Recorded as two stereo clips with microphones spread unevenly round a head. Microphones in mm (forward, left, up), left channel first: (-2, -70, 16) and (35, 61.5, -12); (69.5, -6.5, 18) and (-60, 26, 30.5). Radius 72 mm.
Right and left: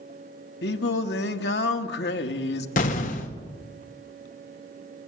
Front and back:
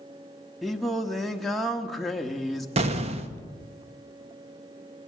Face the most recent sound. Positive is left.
turn(degrees=-150)